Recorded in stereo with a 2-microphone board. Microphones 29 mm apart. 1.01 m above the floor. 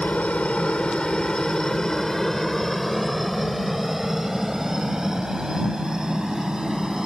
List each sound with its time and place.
0.0 s a helicopter: 50° left (ahead or behind); by 7.1 s 25° right (ahead or behind)